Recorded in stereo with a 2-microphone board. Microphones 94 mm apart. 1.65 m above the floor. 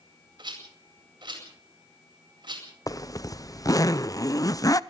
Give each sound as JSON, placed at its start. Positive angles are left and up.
{"t": 0.4, "sound": "a rattle", "side_deg": -60, "distance_m": 8.5}
{"t": 2.9, "sound": "a zipper", "side_deg": 40, "distance_m": 0.8}